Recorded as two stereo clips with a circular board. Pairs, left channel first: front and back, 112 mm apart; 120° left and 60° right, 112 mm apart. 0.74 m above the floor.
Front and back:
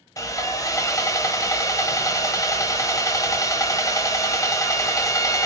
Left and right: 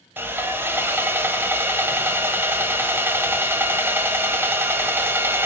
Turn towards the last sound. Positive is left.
turn(degrees=-10)